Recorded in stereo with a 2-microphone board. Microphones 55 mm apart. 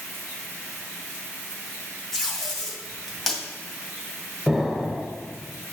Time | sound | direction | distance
2.1 | tape being pulled | 10° left (ahead or behind) | 2 m
4.5 | an explosion | 5° left (ahead or behind) | 1.1 m